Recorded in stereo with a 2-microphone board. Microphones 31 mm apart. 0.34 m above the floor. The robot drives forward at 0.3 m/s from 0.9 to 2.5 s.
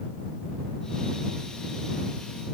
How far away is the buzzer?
I don't hear a buzzer.